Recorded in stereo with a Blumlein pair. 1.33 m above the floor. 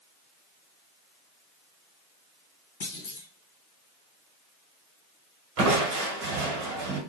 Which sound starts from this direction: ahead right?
Crushing, at 5.6 s.